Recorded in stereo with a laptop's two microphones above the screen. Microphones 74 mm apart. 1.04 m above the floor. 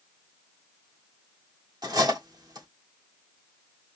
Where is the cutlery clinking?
60° right (ahead or behind), 1.3 m.